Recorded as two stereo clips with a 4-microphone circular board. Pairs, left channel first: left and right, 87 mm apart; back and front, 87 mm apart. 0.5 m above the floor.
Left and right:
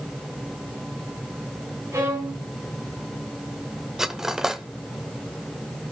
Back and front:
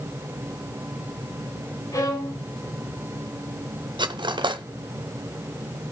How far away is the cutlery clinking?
About 0.7 m.